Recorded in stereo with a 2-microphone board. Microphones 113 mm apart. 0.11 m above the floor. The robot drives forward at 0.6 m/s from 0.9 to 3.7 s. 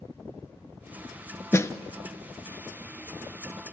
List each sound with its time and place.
1.5 s a snare drum: 25° left (ahead or behind), 0.5 m